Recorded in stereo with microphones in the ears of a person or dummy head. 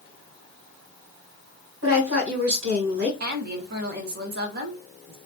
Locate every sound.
1.8 s a woman speaking: 80° right, 1.5 m
3.2 s a woman speaking: 45° right (ahead or behind), 0.5 m